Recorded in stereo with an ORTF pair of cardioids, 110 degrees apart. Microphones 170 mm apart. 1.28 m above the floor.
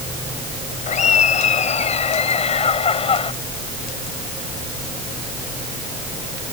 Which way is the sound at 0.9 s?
45° left.